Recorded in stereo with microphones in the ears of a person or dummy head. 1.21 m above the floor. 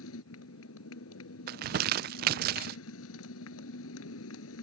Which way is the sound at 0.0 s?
85° left.